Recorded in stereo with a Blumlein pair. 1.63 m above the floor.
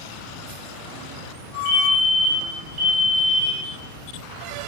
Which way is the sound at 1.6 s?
55° right.